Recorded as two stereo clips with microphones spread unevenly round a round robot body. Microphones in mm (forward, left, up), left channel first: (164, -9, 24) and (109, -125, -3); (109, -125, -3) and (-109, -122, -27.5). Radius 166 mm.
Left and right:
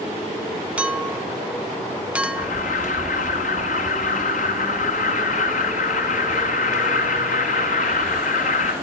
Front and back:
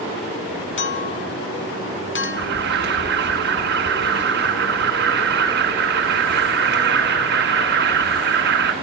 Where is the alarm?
125° left, 1.0 m.